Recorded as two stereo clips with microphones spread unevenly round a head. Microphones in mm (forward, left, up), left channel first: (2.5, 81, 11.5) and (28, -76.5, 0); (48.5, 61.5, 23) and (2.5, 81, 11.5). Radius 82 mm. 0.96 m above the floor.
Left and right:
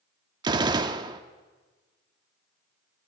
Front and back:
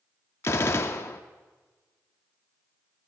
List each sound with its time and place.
0.4 s a gunshot: 15° right, 0.6 m